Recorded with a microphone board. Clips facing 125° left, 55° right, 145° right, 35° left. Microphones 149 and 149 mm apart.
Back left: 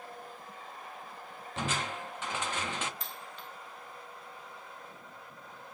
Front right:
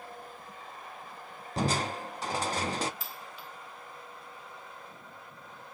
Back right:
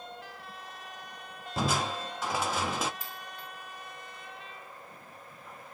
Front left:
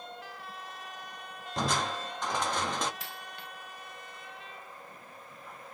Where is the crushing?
65° right, 0.8 m.